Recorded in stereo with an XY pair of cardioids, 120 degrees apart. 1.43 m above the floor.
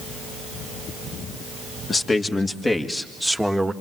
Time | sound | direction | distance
1.9 | a man speaking | 30° left | 3 m